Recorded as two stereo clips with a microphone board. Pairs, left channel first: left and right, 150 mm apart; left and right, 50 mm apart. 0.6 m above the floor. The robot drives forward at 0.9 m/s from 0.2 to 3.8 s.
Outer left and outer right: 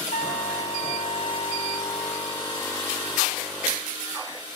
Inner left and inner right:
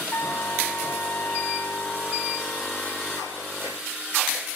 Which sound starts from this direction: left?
A trumpet, at 0.1 s.